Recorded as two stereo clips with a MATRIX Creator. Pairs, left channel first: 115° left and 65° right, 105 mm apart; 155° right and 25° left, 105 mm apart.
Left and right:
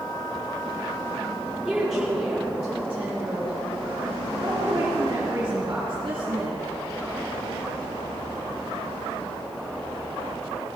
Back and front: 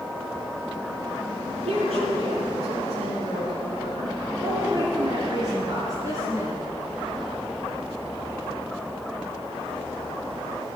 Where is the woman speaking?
15° left, 6 m; by 6.6 s 35° right, 4.5 m.